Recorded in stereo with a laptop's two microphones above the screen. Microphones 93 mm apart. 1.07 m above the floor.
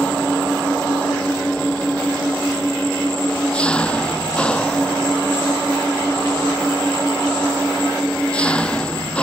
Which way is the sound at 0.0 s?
10° left (ahead or behind).